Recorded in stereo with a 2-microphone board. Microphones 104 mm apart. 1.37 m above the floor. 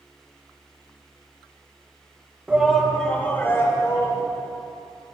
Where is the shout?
10° right (ahead or behind), 1.7 m; by 4.2 s 35° left (ahead or behind), 3 m.